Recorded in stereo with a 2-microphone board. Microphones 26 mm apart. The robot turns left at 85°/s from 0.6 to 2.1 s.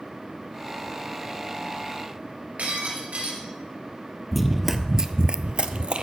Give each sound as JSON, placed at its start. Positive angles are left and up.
{"t": 2.6, "sound": "breaking glass", "side_deg": -80, "distance_m": 4.0}
{"t": 4.3, "sound": "running footsteps", "side_deg": 0, "distance_m": 0.7}